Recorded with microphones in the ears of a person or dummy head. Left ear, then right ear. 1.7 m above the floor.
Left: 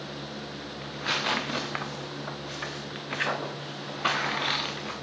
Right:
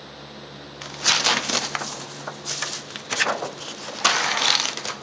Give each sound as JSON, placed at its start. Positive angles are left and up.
{"t": 0.8, "sound": "tearing paper", "side_deg": -70, "distance_m": 0.5}